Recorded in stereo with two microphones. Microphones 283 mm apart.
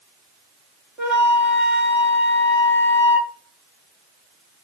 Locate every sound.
1.0 s a flute: centre (ahead or behind), 2.5 m